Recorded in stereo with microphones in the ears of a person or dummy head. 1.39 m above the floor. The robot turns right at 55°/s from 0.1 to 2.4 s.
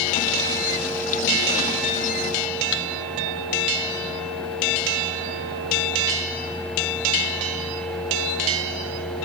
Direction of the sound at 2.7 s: 75° left (ahead or behind).